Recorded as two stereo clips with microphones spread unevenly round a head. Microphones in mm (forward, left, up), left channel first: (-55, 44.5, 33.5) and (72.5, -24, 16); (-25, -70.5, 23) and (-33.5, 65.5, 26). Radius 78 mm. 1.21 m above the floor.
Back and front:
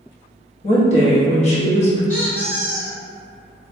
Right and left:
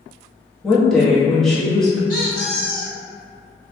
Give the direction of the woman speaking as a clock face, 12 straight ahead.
6 o'clock.